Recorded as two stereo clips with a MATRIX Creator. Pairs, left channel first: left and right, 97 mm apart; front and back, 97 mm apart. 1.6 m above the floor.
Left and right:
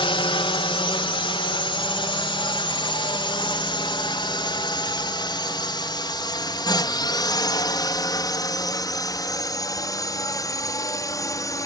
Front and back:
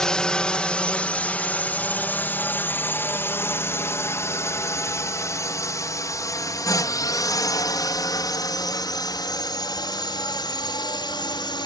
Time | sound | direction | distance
0.0 | a drone | 80° left | ?